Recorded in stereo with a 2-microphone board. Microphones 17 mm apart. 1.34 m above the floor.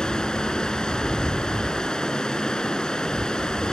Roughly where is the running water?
Left.